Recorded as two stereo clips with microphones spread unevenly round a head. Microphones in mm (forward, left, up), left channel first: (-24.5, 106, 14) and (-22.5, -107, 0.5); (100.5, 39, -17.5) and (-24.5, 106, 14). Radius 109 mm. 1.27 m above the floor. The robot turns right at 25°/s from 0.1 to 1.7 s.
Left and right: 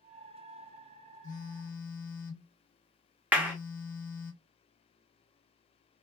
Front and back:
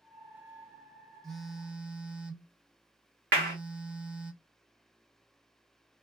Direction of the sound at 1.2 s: 75° left.